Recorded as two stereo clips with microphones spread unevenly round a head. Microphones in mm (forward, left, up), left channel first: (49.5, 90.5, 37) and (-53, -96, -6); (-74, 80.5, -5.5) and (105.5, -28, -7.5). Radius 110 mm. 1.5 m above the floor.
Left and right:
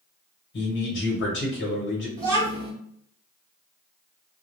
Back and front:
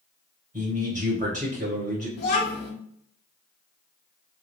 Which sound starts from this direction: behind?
A child speaking, at 2.2 s.